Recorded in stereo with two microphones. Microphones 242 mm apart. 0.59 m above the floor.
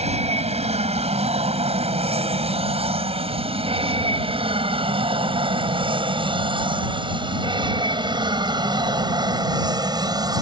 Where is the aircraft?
25° right (ahead or behind); by 10.4 s 15° right (ahead or behind).